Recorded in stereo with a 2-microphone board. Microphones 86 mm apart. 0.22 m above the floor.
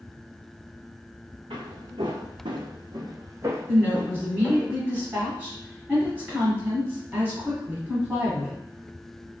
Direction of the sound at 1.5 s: 80° right.